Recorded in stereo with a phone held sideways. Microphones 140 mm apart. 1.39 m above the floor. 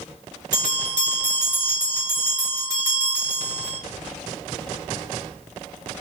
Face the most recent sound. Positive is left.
turn(degrees=-25)  # may be behind; listen again after turning